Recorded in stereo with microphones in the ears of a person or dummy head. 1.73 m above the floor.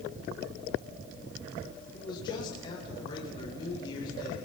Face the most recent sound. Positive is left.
turn(degrees=25)  # may be behind; listen again after turning